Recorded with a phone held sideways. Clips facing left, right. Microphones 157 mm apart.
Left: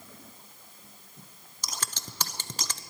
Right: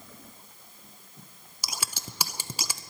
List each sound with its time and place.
1.6 s scissors: 10° right (ahead or behind), 0.8 m